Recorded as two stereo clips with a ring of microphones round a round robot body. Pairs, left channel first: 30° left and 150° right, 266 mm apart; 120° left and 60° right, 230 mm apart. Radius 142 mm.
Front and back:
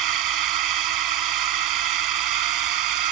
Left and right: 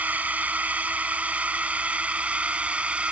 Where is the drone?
145° right.